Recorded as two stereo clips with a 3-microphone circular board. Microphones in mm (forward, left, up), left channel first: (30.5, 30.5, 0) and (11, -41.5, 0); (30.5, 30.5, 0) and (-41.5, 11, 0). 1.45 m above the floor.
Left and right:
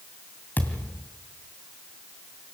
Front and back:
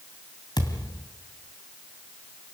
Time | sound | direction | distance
0.6 | a thud | 15° left | 2.5 m